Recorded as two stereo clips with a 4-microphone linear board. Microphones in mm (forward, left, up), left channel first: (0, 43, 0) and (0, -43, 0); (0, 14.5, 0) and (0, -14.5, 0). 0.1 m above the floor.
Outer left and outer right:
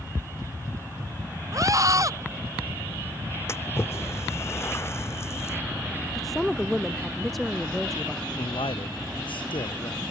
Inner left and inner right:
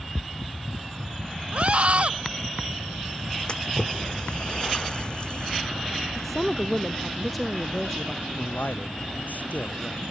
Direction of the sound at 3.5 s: 30° left (ahead or behind).